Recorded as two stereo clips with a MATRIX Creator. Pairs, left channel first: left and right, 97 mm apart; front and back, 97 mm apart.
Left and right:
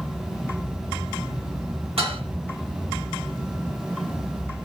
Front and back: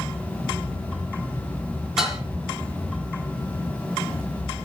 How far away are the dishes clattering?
About 9.5 m.